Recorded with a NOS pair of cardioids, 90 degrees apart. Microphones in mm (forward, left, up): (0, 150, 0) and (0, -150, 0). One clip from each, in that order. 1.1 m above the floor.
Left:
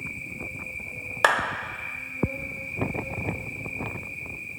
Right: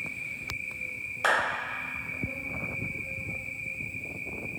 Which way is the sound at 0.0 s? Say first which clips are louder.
Left 1 dB; 70° left.